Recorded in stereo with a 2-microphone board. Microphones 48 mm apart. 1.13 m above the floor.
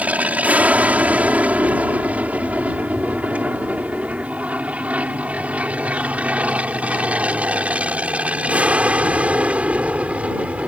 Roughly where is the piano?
I don't hear a piano.